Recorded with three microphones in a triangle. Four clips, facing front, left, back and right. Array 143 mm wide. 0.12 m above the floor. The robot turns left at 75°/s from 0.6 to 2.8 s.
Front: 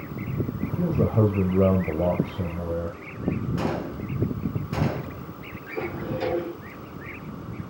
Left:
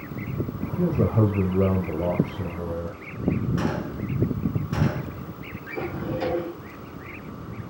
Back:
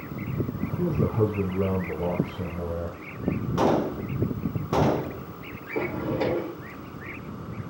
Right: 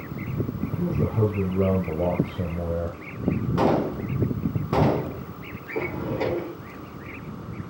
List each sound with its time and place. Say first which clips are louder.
0.8 s a man speaking: left 3 dB, front 2 dB; 55° left, 2.5 m; by 3.0 s 100° right, 2.5 m
3.6 s a gunshot: right 6 dB, back 6 dB; 130° right, 0.9 m
5.7 s a drawer: right 1 dB, back 2 dB; 145° right, 7.5 m